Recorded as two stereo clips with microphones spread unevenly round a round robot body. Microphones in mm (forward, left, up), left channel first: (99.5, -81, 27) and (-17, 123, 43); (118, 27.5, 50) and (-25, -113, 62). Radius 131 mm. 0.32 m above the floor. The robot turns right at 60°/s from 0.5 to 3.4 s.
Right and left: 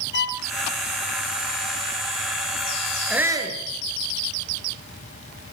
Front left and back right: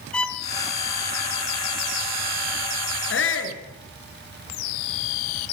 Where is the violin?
40° right, 1.9 m.